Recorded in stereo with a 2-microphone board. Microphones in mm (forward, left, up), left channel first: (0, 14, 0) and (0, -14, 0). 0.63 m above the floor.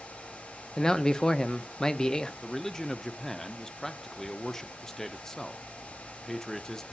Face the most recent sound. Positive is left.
turn(degrees=15)  # may be behind; listen again after turning